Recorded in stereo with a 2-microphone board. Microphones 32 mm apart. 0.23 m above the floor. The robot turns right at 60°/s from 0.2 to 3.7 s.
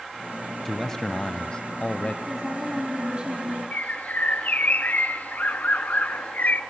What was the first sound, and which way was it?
A man speaking, 15° left.